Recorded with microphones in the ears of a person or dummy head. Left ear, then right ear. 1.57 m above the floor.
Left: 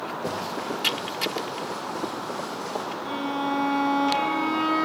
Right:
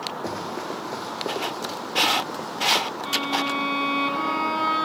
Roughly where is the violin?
Right.